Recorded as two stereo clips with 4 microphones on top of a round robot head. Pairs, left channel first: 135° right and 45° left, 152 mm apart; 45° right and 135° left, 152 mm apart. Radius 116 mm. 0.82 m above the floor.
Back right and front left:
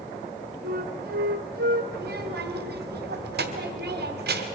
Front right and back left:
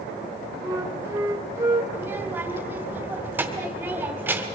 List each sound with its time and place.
0.6 s a flute: 60° left, 1.8 m
1.9 s a child speaking: 55° left, 2 m